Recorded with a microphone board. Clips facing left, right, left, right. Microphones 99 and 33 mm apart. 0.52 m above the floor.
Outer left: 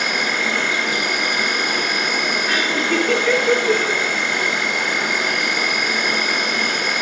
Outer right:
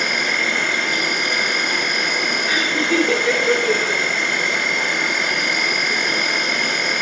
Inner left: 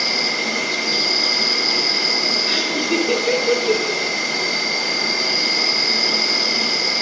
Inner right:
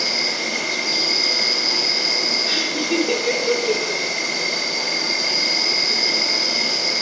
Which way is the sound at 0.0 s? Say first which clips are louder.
Even, inner left 2 dB; 10° left (ahead or behind).